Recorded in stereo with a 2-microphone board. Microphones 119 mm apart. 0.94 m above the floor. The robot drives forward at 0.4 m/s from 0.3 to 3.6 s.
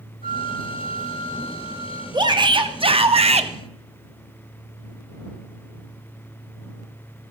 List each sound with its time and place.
0.2 s a flute: 70° left (ahead or behind), 1.5 m
2.1 s a shout: 40° right (ahead or behind), 1.0 m; by 3.5 s 65° right (ahead or behind), 0.7 m